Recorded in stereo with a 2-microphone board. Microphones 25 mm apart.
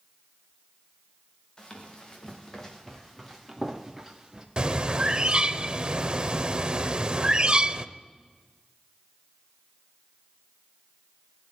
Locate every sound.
1.6 s running footsteps: 30° left (ahead or behind), 4.5 m; by 4.5 s 20° right (ahead or behind), 3 m
4.6 s a bird: 35° right (ahead or behind), 0.7 m